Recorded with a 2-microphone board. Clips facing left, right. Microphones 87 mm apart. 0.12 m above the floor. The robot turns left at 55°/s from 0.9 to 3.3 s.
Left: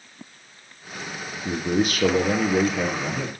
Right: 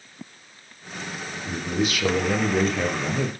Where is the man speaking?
85° left, 3 m; by 3.3 s 15° right, 3 m.